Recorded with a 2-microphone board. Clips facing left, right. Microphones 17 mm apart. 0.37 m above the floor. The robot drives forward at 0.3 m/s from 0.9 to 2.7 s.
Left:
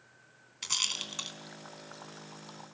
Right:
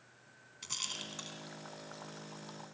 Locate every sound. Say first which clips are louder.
0.6 s a rattle: left 8 dB; 30° left (ahead or behind), 3 m